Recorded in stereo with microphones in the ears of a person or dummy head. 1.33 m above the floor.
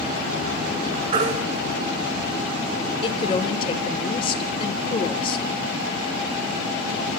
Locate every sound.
1.1 s a baby crying: 45° right (ahead or behind), 2 m
3.0 s a woman speaking: 30° left (ahead or behind), 1.2 m